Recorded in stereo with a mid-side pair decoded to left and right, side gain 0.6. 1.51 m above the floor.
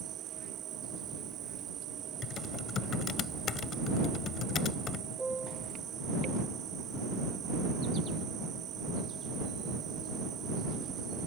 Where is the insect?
55° right.